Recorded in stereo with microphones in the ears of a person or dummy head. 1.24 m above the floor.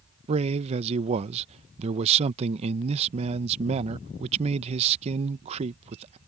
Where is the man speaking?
35° right (ahead or behind).